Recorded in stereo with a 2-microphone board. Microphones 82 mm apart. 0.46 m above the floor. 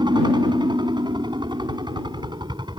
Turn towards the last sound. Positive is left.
turn(degrees=-65)  # may be behind; listen again after turning